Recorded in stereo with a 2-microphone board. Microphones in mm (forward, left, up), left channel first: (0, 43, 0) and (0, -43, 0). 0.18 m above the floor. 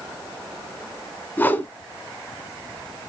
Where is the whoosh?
20° left (ahead or behind), 0.7 m.